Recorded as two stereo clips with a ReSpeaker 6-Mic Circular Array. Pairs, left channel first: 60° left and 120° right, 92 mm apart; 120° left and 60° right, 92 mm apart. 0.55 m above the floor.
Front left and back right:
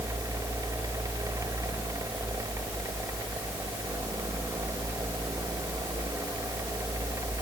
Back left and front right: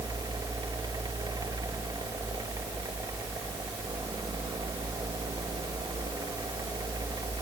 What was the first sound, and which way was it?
Only background noise.